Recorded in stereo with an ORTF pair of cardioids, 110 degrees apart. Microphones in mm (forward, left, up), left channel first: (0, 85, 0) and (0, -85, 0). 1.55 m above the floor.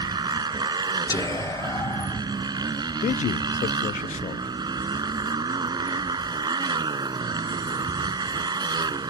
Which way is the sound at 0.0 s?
25° right.